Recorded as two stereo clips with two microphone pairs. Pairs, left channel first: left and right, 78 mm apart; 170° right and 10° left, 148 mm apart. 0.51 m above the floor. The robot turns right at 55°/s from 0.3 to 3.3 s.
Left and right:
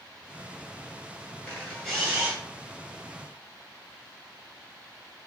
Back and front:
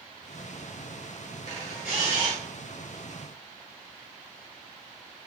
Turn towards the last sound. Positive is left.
turn(degrees=-110)